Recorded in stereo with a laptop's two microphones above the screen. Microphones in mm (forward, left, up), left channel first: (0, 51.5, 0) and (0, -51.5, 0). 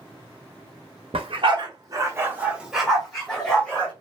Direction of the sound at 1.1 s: 60° right (ahead or behind).